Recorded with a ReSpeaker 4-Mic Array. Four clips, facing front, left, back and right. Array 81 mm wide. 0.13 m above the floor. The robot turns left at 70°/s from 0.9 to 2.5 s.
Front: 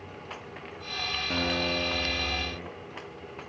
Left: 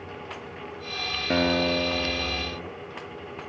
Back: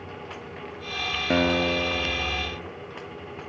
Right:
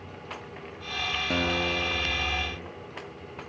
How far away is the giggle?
I don't hear a giggle.